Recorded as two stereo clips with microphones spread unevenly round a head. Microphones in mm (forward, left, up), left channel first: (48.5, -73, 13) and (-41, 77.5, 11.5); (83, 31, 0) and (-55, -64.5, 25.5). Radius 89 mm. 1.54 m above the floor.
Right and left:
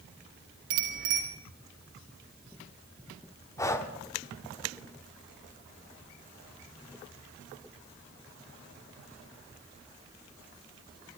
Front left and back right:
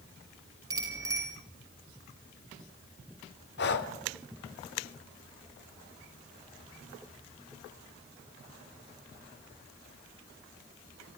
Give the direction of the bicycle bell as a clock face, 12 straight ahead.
7 o'clock.